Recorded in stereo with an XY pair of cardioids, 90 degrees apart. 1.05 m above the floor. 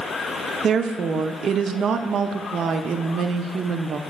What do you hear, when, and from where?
0.6 s a woman speaking: 65° right, 0.5 m